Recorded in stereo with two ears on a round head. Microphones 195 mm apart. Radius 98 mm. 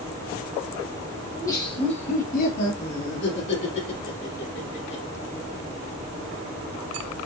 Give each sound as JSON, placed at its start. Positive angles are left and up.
{"t": 1.3, "sound": "laughter", "side_deg": 10, "distance_m": 1.1}